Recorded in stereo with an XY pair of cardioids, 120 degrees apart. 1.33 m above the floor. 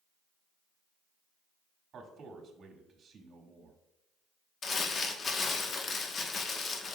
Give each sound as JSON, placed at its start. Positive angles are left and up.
{"t": 1.9, "sound": "a man speaking", "azimuth_deg": -45, "distance_m": 1.8}
{"t": 4.6, "sound": "crumpling", "azimuth_deg": 40, "distance_m": 1.1}